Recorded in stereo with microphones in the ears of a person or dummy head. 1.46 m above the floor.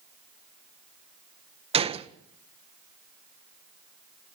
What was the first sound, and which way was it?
A gunshot, 30° right (ahead or behind).